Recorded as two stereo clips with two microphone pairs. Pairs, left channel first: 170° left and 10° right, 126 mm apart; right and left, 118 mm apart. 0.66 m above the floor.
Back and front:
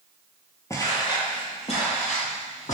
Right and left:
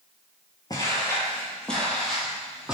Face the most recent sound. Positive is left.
turn(degrees=175)